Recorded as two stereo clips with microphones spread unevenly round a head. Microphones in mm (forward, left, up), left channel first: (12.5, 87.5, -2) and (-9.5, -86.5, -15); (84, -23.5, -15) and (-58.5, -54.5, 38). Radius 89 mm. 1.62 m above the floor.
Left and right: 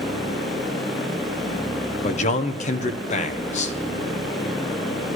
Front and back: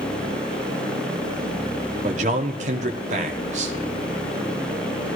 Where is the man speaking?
135° left, 1.2 m.